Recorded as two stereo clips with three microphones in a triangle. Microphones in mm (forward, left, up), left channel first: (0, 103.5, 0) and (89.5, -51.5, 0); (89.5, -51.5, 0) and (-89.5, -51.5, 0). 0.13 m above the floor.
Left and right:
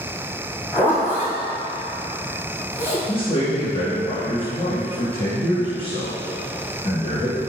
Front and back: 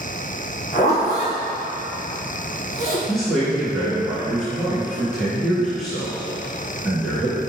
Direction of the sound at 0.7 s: 40° left.